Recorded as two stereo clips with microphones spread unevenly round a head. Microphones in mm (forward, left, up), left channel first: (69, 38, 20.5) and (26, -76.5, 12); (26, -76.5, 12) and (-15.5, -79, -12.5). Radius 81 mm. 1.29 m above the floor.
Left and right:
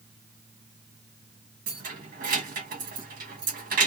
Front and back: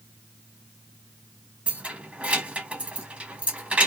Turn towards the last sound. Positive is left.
turn(degrees=-110)